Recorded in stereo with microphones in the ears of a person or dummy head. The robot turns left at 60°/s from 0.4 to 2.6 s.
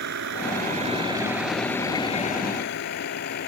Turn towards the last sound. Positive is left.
turn(degrees=55)  # may be behind; listen again after turning